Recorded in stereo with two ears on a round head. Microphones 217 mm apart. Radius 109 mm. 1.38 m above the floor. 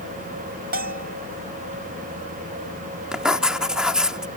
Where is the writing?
5° right (ahead or behind).